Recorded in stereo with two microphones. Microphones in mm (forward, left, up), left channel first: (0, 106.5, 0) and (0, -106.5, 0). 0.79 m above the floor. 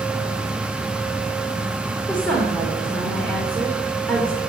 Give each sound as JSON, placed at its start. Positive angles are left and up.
{"t": 2.1, "sound": "a woman speaking", "side_deg": 5, "distance_m": 3.0}